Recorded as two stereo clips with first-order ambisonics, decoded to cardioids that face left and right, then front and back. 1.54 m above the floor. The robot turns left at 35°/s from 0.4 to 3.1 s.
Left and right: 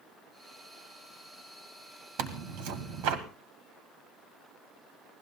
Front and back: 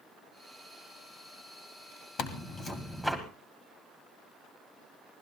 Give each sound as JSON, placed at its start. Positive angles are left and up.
{"t": 2.2, "sound": "tearing paper", "azimuth_deg": -55, "distance_m": 1.9}